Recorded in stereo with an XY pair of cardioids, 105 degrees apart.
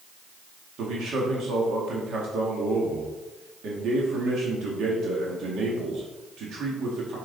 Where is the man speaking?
65° right, 2 m.